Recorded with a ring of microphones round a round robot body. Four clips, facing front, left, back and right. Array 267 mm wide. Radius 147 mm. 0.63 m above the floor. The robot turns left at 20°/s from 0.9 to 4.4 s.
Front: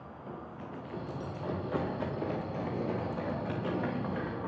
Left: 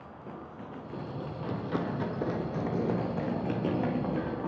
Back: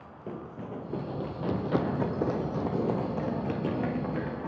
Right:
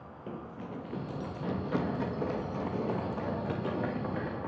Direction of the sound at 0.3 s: 160° right.